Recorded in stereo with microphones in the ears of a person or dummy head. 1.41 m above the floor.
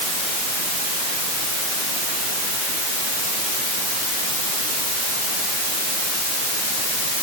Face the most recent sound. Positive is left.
No sound to turn to.